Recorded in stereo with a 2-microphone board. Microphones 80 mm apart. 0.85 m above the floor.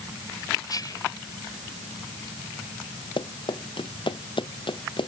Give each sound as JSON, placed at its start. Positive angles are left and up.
{"t": 0.7, "sound": "whispering", "side_deg": 50}
{"t": 3.2, "sound": "running footsteps", "side_deg": 85}